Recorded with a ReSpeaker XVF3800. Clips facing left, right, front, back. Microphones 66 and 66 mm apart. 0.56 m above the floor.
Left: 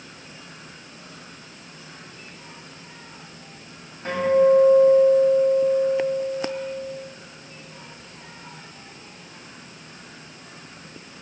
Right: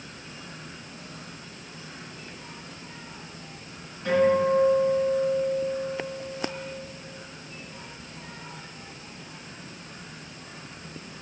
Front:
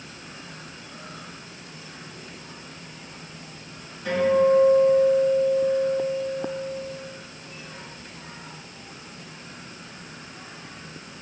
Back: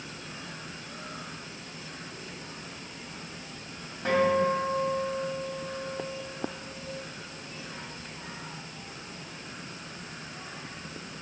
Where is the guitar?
140° left, 2 m.